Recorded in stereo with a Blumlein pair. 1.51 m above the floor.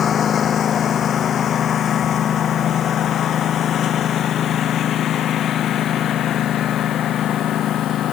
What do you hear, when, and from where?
0.0 s a lawn mower: 25° left; by 8.1 s 30° left